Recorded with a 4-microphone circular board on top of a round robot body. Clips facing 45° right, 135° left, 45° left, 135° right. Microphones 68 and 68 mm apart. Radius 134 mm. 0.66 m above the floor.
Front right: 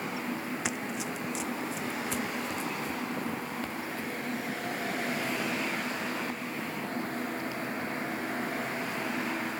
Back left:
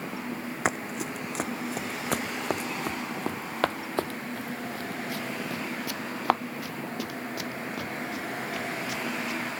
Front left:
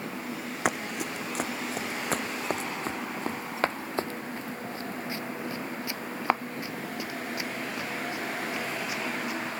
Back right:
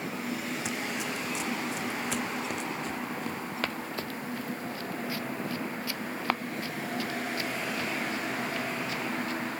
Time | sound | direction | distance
0.7 | running footsteps | 85° left | ?